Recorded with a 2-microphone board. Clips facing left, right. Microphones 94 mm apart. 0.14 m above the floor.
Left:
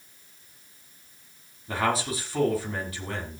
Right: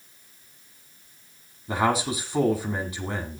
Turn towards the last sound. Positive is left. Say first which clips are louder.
# right 3 dB
turn(degrees=-15)  # may be behind; listen again after turning